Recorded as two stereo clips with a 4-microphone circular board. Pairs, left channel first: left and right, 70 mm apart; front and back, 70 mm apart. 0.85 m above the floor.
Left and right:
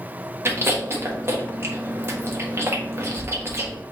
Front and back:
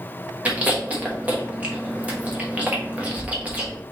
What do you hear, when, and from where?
0.5 s chewing: 120° right, 1.1 m